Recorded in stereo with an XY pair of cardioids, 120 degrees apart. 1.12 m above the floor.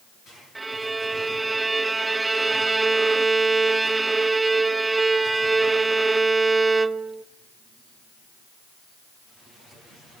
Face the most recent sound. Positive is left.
turn(degrees=-15)